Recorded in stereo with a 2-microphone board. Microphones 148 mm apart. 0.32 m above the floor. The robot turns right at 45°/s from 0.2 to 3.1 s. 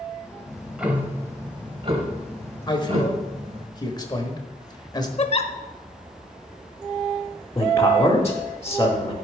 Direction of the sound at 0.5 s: 175° left.